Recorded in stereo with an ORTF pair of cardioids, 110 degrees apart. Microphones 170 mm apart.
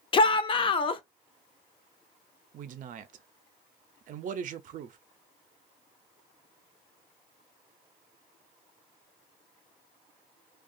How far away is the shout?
About 0.6 m.